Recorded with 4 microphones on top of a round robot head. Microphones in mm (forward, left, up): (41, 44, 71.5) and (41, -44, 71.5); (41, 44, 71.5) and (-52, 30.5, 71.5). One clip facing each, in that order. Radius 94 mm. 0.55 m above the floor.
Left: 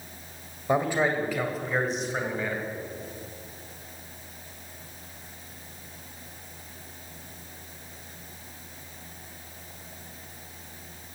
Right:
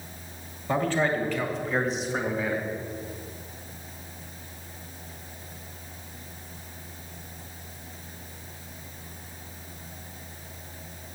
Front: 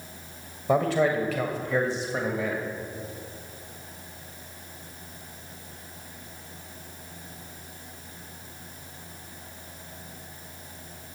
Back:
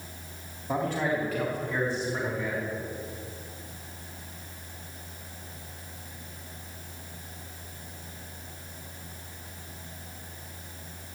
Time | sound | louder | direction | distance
0.7 | a man speaking | left 1 dB, front 6 dB | 15° left | 2.5 m